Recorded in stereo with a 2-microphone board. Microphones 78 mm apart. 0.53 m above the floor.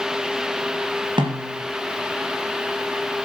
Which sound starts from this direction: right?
A snare drum, at 1.2 s.